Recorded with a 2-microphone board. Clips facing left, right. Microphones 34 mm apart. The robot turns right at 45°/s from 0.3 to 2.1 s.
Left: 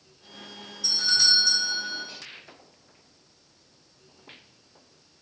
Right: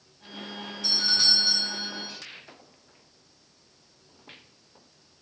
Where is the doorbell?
95° right, 2.5 m; by 2.1 s 40° right, 2.5 m.